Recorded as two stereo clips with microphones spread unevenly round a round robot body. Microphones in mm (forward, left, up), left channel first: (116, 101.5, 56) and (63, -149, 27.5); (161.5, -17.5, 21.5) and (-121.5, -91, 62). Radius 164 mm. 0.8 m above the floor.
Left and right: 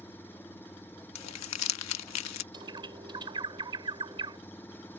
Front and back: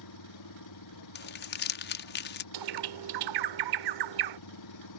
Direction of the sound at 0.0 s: 5° right.